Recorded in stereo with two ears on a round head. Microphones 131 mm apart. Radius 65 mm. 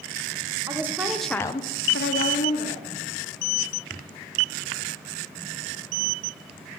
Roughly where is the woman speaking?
Centre.